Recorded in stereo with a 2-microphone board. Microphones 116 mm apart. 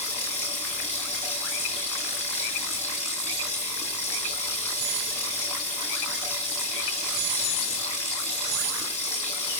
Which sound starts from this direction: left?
Running water, at 0.0 s.